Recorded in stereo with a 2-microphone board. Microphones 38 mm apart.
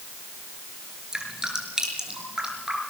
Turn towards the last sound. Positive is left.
turn(degrees=-15)  # may be behind; listen again after turning